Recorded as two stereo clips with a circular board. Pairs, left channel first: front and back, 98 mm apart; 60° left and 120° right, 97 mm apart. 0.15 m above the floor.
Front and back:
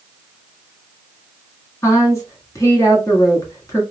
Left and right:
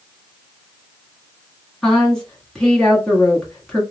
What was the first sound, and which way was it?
A woman speaking, 20° right.